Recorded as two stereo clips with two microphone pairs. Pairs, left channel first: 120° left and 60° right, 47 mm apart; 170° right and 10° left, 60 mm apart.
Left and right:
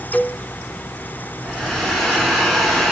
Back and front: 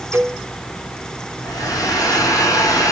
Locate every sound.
0.1 s a cowbell: 55° left, 1.7 m
1.4 s a hair dryer: 155° right, 9.5 m